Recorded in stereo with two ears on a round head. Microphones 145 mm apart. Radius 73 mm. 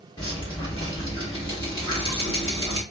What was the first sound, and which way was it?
Dripping, 30° left (ahead or behind).